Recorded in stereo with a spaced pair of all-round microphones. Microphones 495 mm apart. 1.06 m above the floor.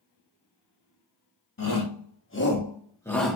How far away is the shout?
About 1.6 m.